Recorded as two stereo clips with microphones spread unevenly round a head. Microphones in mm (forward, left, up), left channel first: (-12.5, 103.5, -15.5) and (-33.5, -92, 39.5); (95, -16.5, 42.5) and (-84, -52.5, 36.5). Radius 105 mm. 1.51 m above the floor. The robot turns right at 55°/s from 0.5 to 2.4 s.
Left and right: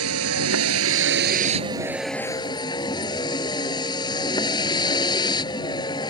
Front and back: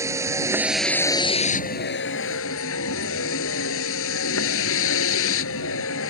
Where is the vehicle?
95° right; by 6.1 s 10° left.